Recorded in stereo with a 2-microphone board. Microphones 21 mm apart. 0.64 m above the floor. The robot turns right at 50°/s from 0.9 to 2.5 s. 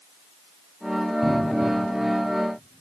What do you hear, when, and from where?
1.2 s a cupboard door: 15° right (ahead or behind), 3 m; by 1.7 s 40° right (ahead or behind), 3 m